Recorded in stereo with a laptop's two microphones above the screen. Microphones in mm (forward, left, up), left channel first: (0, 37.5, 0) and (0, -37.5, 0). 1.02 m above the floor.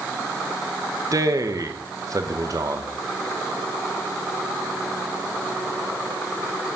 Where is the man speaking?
50° right (ahead or behind), 1.0 m.